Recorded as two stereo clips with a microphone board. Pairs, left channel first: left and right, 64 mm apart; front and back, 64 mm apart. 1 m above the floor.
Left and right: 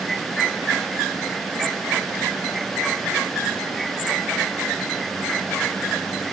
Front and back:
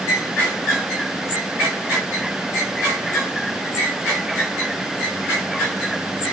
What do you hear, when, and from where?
Only background noise.